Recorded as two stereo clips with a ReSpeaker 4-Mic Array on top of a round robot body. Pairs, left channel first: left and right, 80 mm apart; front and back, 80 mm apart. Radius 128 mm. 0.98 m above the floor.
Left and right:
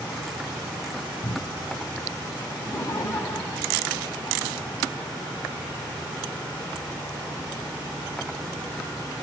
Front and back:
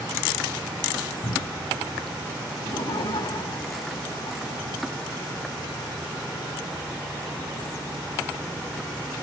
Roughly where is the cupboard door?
Ahead left.